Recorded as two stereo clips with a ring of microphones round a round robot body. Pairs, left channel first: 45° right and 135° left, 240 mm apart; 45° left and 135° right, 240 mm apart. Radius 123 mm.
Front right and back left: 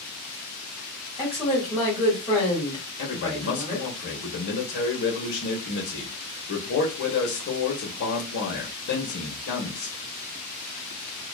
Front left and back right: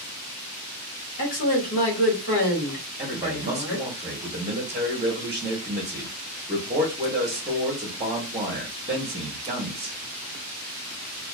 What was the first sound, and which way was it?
A woman speaking, 45° left.